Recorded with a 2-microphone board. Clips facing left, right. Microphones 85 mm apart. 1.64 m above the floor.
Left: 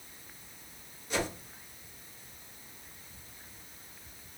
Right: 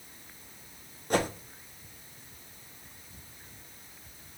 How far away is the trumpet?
No trumpet in this recording.